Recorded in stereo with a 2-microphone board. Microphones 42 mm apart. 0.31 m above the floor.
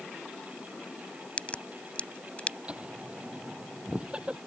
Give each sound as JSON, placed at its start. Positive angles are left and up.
{"t": 1.4, "sound": "a crack", "side_deg": 30}
{"t": 2.7, "sound": "laughter", "side_deg": -25}